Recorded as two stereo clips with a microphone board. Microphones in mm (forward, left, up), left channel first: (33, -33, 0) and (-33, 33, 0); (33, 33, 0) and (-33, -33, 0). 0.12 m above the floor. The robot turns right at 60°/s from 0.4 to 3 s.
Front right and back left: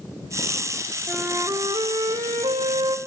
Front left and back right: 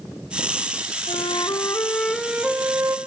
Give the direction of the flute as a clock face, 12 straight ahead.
10 o'clock.